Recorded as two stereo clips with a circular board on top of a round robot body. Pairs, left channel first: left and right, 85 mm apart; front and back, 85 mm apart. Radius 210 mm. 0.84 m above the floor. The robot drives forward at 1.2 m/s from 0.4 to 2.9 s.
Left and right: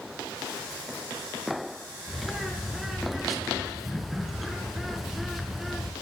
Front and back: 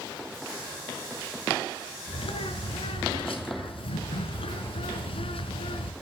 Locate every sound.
2.1 s a bird: straight ahead, 5.5 m